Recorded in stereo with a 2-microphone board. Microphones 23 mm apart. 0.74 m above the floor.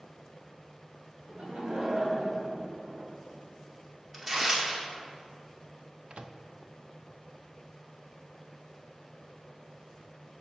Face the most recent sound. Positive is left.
turn(degrees=-60)  # may be behind; listen again after turning